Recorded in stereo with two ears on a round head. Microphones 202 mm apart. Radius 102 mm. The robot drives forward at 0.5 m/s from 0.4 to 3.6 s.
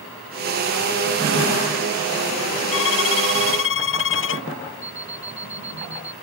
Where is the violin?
65° left (ahead or behind).